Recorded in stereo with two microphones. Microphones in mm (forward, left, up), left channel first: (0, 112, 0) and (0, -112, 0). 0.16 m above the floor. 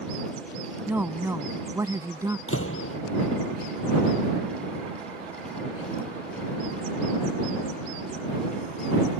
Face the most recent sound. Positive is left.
turn(degrees=70)  # may be behind; listen again after turning